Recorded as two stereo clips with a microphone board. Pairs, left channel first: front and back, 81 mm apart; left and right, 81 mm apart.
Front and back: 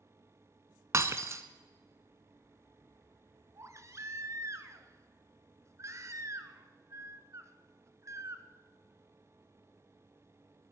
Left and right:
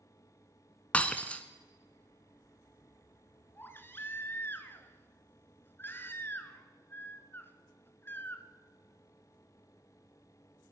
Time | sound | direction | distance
0.9 | breaking glass | 155° left | 0.7 m
3.5 | a baby crying | 145° left | 1.0 m